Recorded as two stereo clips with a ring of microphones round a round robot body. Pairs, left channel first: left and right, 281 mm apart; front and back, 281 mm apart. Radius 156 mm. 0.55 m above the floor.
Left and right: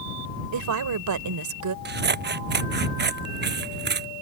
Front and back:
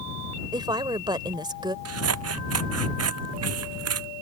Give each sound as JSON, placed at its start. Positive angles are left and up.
{"t": 0.5, "sound": "a woman speaking", "azimuth_deg": -105}
{"t": 1.9, "sound": "scissors", "azimuth_deg": -145}